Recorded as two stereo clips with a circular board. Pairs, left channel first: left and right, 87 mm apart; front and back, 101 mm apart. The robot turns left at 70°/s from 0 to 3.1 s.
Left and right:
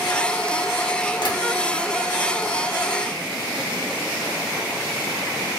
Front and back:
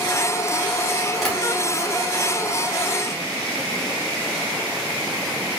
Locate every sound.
1.2 s tapping: 90° left, 1.2 m; by 1.4 s 80° left, 1.2 m